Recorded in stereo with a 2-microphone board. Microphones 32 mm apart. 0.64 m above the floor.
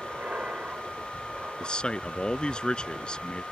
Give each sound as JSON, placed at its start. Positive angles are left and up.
{"t": 0.0, "sound": "an aircraft", "side_deg": -60}
{"t": 1.6, "sound": "a man speaking", "side_deg": 30}